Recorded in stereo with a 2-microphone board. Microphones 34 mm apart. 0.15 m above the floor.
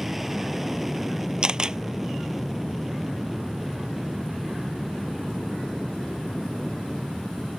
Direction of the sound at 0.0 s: 10° right (ahead or behind).